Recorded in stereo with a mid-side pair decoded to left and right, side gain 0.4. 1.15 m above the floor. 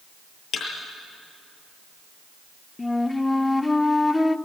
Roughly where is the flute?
Ahead.